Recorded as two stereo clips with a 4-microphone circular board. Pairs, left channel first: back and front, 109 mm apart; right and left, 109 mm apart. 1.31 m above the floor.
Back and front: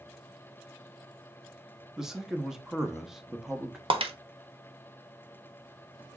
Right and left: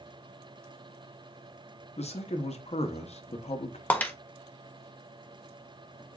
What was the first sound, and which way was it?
A man speaking, 85° right.